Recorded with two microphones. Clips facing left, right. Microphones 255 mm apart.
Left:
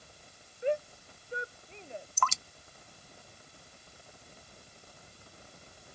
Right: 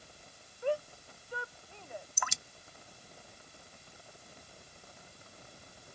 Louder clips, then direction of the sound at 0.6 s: Left 2 dB; 20° left (ahead or behind).